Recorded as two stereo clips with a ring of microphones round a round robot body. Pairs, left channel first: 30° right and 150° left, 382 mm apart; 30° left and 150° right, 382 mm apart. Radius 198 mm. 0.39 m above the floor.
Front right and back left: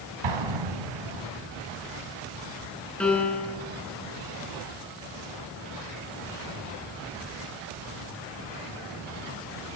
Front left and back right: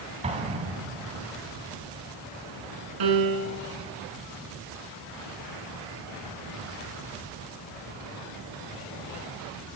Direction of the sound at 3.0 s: 115° right.